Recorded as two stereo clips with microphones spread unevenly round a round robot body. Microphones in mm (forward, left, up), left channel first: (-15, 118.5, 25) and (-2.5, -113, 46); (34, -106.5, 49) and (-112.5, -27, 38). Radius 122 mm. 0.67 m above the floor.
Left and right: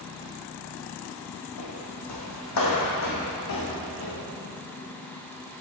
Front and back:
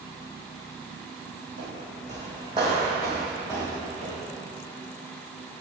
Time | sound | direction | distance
1.6 | footsteps | 100° left | 1.7 m